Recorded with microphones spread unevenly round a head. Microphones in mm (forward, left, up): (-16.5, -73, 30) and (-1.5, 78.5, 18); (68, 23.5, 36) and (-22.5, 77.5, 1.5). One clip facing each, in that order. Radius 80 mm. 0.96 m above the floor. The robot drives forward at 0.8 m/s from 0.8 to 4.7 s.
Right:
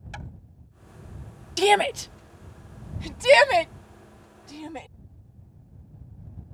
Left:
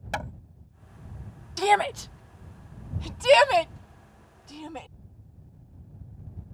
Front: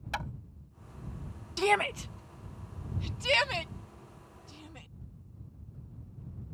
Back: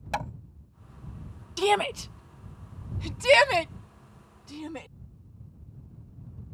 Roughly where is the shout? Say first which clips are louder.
Right 3 dB, back 4 dB; behind right.